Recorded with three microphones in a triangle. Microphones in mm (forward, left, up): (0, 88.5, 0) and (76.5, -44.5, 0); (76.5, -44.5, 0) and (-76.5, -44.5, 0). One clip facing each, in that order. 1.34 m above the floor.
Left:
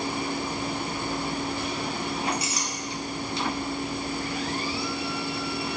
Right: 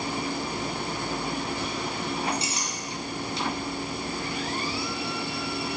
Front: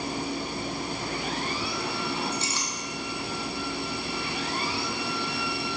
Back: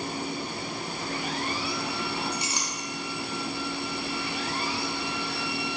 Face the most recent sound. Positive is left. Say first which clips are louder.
# even, front 1 dB
turn(degrees=-110)